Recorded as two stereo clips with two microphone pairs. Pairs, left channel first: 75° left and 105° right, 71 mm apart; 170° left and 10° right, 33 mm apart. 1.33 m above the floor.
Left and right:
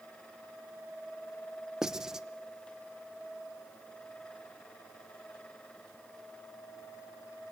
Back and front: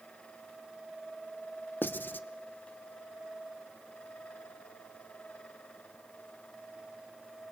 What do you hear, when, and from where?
1.8 s writing: 175° left, 0.8 m